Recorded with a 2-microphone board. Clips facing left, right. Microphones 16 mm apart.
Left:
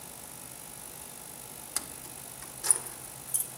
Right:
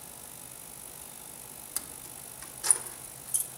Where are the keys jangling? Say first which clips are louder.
Left 3 dB; 20° left (ahead or behind), 0.6 m; by 3.5 s 20° right (ahead or behind), 2.5 m.